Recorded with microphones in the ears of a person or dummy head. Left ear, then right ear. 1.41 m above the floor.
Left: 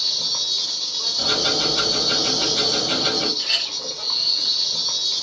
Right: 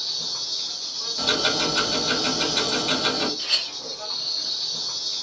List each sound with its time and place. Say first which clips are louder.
0.0 s an insect: left 6 dB; 35° left (ahead or behind), 0.7 m
1.2 s ticking: left 1 dB; 70° right (ahead or behind), 1.3 m
3.4 s a clink: left 2 dB; 20° right (ahead or behind), 0.7 m